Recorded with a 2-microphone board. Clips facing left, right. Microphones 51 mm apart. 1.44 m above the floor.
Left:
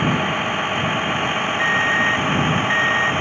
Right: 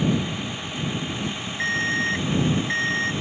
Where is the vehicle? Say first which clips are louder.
Left 5 dB; 50° left (ahead or behind).